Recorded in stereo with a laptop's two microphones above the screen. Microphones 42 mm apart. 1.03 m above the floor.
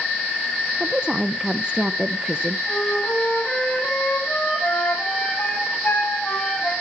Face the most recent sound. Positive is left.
turn(degrees=45)  # may be behind; listen again after turning